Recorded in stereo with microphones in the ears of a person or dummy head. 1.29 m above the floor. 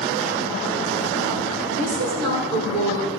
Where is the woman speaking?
40° right (ahead or behind), 3 m; by 3.1 s 65° right (ahead or behind), 3.5 m.